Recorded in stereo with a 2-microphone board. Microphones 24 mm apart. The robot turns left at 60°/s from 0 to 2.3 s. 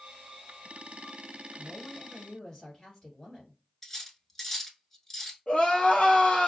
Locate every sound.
1.6 s a woman speaking: straight behind, 1.7 m; by 3.6 s 135° left, 1.7 m
3.8 s cutlery clinking: 20° left (ahead or behind), 0.7 m
5.5 s crying: 65° left (ahead or behind), 1.3 m